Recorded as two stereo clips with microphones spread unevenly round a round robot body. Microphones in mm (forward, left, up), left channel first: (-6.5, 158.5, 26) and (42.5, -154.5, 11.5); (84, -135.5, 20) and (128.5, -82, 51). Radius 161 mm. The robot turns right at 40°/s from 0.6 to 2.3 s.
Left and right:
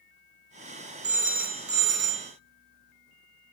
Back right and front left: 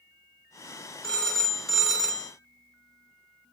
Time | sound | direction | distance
1.0 | a phone ringing | 125° right | 0.6 m